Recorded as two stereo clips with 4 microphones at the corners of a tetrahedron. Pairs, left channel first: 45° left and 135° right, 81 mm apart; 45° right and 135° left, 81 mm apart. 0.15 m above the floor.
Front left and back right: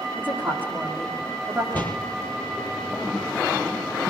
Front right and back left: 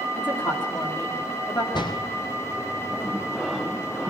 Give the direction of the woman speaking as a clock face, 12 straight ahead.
2 o'clock.